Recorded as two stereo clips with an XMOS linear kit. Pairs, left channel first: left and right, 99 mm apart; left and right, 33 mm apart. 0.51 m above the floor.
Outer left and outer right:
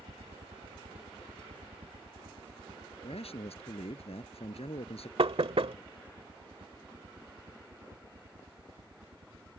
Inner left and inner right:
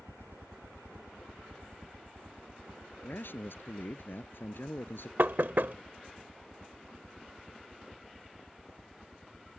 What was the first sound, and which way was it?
A helicopter, 65° right (ahead or behind).